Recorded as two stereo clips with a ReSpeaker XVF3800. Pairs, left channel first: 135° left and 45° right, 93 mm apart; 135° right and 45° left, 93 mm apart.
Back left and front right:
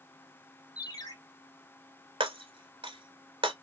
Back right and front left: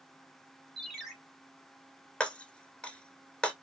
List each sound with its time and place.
0.8 s a ringtone: 140° left, 1.4 m
2.2 s breaking glass: 55° right, 0.8 m